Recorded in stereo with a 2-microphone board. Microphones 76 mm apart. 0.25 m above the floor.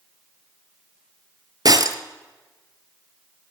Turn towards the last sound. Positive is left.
turn(degrees=-55)  # may be behind; listen again after turning